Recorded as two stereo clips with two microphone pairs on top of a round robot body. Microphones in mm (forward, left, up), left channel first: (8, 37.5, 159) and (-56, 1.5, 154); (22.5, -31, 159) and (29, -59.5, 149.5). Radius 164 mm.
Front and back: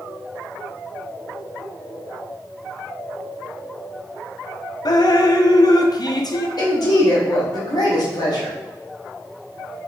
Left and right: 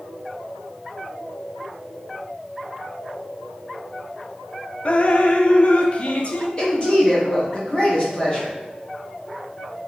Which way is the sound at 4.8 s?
45° left.